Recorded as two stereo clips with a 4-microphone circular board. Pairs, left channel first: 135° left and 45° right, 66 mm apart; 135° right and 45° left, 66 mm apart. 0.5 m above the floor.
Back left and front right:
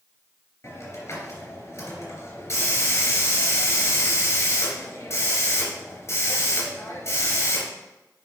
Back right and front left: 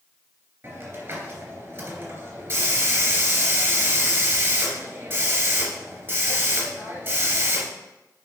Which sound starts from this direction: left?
A hiss, at 0.6 s.